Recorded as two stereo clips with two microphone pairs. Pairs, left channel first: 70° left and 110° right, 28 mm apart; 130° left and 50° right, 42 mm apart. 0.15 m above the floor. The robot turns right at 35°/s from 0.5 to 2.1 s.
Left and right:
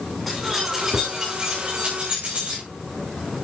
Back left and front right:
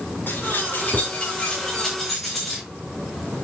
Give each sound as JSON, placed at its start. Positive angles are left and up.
{"t": 0.3, "sound": "keys jangling", "azimuth_deg": 160, "distance_m": 9.0}